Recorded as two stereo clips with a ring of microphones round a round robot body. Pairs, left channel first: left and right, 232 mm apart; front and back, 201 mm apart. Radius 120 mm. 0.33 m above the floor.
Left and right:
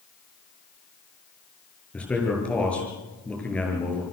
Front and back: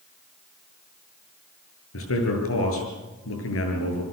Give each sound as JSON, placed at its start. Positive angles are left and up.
{"t": 1.9, "sound": "a man speaking", "azimuth_deg": 5, "distance_m": 7.5}